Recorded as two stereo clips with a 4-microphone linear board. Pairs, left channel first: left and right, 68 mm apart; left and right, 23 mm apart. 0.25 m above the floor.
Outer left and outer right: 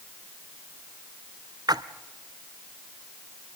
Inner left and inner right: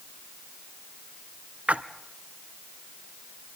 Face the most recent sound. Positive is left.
turn(degrees=-80)